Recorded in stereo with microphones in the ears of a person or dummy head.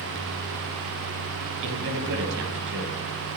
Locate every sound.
1.6 s a man speaking: 70° right (ahead or behind), 6.5 m